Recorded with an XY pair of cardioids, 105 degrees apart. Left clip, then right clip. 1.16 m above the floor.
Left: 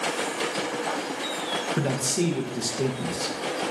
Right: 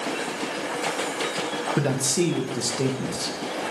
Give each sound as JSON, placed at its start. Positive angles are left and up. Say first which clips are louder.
{"t": 1.8, "sound": "a man speaking", "louder": "right 2 dB", "azimuth_deg": -15, "distance_m": 0.7}